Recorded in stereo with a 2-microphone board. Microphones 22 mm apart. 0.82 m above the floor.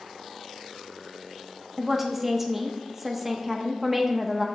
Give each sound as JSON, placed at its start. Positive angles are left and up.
{"t": 1.8, "sound": "a woman speaking", "side_deg": -5, "distance_m": 0.9}